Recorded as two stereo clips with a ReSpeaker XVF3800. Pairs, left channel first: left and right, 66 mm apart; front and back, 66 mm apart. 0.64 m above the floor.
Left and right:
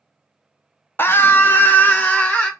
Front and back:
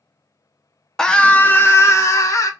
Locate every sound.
1.0 s a scream: 75° left, 0.6 m; by 2.5 s 25° left, 1.0 m